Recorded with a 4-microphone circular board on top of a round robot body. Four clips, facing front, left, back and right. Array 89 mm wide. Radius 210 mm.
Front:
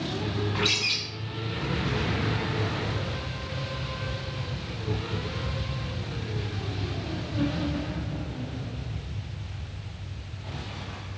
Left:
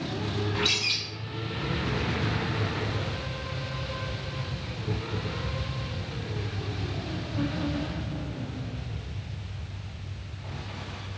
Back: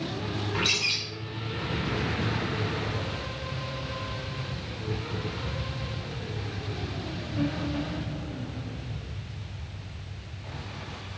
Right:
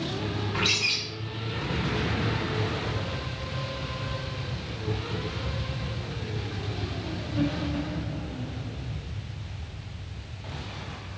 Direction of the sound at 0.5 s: 145° right.